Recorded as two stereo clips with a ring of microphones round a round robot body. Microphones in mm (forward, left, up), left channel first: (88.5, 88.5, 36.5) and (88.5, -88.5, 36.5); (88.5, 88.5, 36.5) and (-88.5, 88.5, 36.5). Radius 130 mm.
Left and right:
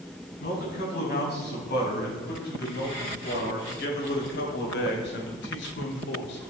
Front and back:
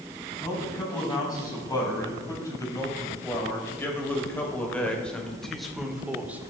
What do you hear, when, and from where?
0.4 s a man speaking: 65° left, 4.5 m; by 6.4 s 100° left, 1.6 m